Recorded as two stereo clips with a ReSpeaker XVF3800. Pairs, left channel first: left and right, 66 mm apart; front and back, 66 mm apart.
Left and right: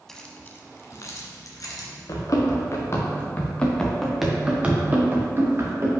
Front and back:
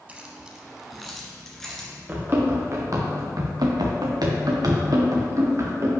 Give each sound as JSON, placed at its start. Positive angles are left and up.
{"t": 0.1, "sound": "keys jangling", "azimuth_deg": 165, "distance_m": 0.7}
{"t": 2.1, "sound": "running footsteps", "azimuth_deg": 120, "distance_m": 2.0}